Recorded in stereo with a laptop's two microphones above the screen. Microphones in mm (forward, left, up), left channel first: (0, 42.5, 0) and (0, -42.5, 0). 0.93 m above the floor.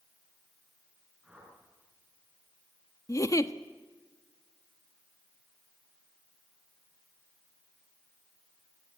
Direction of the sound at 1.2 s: 5° right (ahead or behind).